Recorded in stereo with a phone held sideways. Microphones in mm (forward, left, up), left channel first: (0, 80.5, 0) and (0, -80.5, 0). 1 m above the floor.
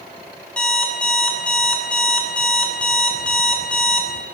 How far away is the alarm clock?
About 0.8 m.